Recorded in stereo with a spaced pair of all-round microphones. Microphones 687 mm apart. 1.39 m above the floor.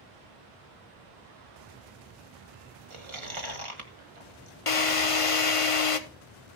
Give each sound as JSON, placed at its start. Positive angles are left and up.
{"t": 2.9, "sound": "chewing", "side_deg": -45, "distance_m": 1.6}
{"t": 4.7, "sound": "a drill", "side_deg": 50, "distance_m": 1.0}